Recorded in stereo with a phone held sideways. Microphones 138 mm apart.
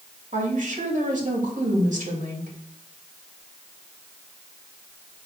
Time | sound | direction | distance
0.3 | a woman speaking | 80° right | 2.5 m